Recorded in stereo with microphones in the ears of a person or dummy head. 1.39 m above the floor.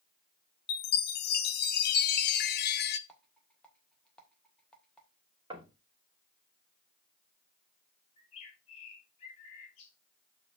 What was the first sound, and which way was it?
A chime, 50° left (ahead or behind).